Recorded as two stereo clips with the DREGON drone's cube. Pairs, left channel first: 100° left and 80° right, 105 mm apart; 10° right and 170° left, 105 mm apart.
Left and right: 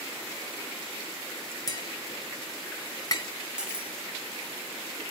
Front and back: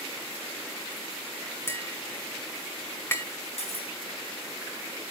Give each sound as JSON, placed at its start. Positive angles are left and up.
{"t": 1.7, "sound": "tapping", "azimuth_deg": 55, "distance_m": 1.9}
{"t": 3.6, "sound": "cutlery clinking", "azimuth_deg": 0, "distance_m": 2.0}